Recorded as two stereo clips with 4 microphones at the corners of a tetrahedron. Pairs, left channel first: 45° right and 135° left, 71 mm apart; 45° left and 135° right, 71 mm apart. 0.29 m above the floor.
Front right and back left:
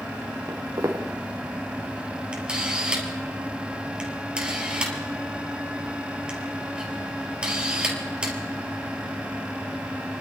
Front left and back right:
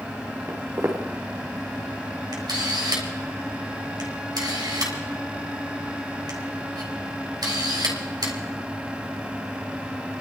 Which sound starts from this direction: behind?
Footsteps, at 0.5 s.